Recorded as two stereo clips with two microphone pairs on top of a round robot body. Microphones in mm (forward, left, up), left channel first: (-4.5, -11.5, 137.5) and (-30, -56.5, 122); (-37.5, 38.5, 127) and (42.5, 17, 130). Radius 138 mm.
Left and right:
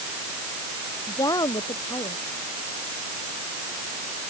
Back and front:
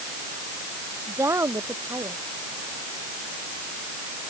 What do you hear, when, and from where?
1.1 s a woman speaking: 40° left